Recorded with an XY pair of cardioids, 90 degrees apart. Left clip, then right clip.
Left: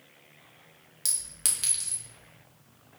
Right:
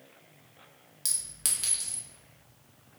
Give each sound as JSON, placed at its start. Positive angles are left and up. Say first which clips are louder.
{"t": 1.1, "sound": "a clink", "louder": "left 1 dB", "azimuth_deg": 15, "distance_m": 1.0}